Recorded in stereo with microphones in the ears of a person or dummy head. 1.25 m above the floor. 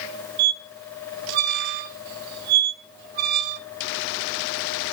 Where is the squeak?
50° right (ahead or behind), 0.8 m.